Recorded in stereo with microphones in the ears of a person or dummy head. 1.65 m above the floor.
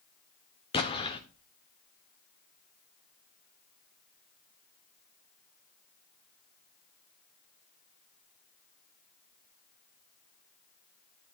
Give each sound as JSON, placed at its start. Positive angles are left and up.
{"t": 0.7, "sound": "an explosion", "side_deg": 25, "distance_m": 1.1}